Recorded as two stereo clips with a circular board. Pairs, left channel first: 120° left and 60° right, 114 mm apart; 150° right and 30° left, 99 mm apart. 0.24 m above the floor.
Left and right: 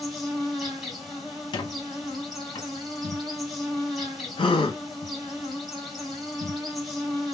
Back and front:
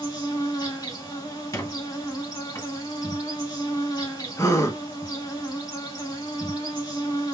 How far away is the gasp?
About 0.6 m.